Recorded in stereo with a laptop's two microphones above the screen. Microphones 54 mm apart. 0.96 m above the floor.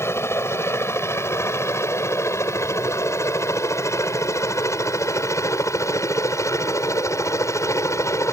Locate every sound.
0.0 s a helicopter: 55° left (ahead or behind); by 8.3 s 65° left (ahead or behind)